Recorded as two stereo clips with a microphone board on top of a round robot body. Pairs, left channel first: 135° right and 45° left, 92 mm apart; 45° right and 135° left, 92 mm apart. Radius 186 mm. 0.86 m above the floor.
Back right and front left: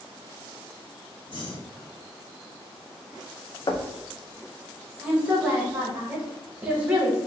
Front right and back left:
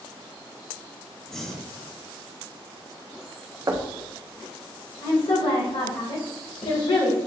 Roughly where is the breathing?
Behind right.